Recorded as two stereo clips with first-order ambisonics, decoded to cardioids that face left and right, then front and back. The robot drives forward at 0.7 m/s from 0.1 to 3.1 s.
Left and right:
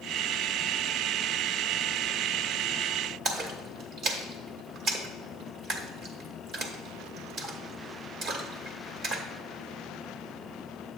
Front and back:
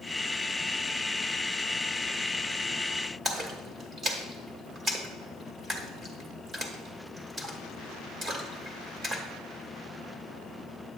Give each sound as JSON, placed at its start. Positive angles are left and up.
{"t": 3.2, "sound": "a splash", "azimuth_deg": -120, "distance_m": 1.0}